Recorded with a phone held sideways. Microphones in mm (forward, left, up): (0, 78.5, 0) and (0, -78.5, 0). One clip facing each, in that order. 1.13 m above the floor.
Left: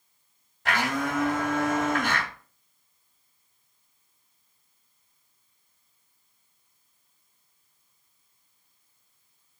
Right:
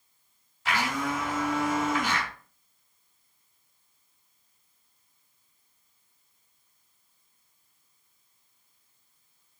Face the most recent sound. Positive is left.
turn(degrees=60)  # may be behind; listen again after turning